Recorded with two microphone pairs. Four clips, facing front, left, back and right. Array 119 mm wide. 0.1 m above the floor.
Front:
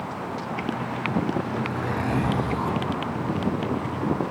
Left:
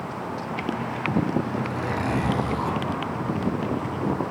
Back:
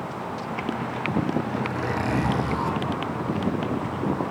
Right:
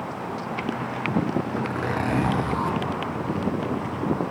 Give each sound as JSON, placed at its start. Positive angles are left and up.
{"t": 1.6, "sound": "a zipper", "azimuth_deg": -100, "distance_m": 3.0}